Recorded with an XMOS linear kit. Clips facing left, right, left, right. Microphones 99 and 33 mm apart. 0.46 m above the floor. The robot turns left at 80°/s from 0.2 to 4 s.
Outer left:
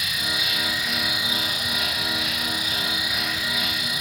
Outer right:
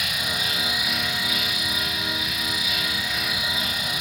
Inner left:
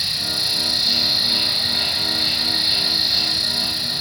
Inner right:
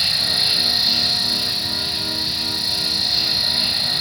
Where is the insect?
120° right, 0.7 m; by 4.0 s 65° right, 0.7 m.